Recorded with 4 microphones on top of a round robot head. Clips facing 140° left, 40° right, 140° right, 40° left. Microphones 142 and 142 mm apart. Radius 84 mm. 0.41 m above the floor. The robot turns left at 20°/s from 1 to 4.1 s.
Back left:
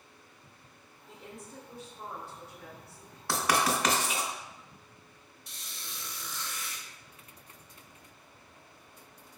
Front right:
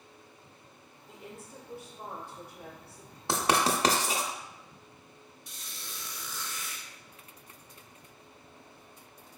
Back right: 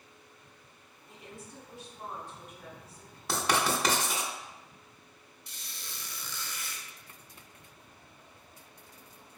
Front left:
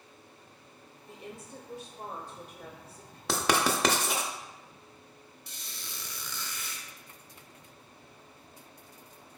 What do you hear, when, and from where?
1.1 s a woman speaking: 50° left, 1.0 m; by 3.2 s 10° left, 1.0 m
3.3 s writing: 30° left, 0.5 m; by 4.3 s 15° left, 0.5 m
5.5 s a squeak: 50° left, 0.7 m